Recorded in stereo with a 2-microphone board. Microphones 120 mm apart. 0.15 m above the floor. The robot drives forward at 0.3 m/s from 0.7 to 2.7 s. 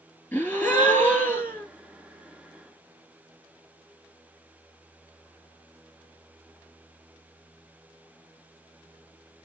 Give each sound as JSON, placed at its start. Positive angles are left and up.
{"t": 0.3, "sound": "a gasp", "side_deg": 15, "distance_m": 1.4}